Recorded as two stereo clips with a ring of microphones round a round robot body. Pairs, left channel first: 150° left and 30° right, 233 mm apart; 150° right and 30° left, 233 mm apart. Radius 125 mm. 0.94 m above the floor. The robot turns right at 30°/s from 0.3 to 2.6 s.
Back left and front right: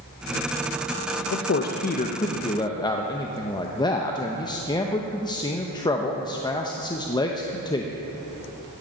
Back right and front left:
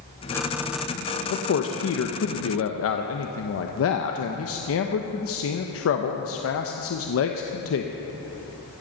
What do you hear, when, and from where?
1.3 s a man speaking: straight behind, 0.8 m; by 7.9 s 140° right, 0.8 m